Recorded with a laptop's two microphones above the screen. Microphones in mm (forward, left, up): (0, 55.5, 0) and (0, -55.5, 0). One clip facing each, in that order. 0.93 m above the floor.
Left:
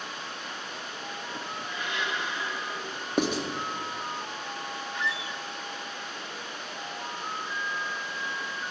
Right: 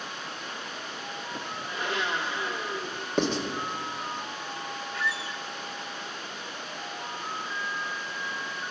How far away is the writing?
About 1.1 m.